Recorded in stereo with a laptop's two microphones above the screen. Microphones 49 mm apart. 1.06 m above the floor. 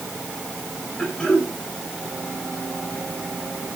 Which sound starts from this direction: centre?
Throat clearing, at 1.0 s.